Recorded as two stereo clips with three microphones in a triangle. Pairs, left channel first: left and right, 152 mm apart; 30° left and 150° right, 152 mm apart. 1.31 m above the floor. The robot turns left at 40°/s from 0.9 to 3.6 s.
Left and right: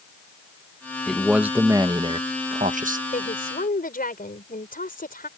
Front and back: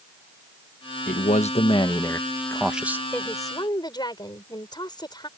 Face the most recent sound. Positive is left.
turn(degrees=90)